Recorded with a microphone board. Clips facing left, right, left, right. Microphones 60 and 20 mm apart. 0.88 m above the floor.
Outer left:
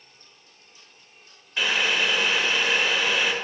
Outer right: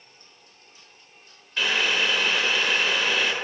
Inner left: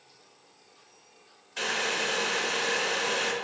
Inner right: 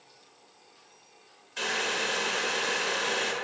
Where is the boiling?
10° left (ahead or behind), 1.0 m.